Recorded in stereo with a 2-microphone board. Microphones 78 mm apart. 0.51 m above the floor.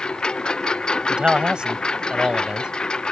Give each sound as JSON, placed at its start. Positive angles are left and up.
{"t": 0.0, "sound": "a lawn mower", "side_deg": 10}
{"t": 1.1, "sound": "a man speaking", "side_deg": -10}